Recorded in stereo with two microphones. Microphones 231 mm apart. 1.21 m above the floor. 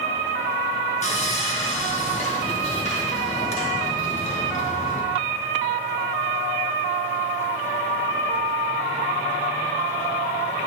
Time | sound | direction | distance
1.0 | sawing | 30° left (ahead or behind) | 1.0 m